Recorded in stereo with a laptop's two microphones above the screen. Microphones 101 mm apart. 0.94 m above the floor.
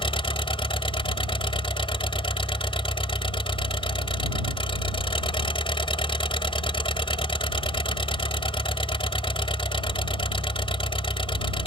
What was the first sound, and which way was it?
An engine running, 60° left (ahead or behind).